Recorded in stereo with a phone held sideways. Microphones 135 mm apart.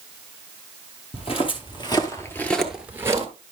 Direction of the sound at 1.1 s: 45° left (ahead or behind).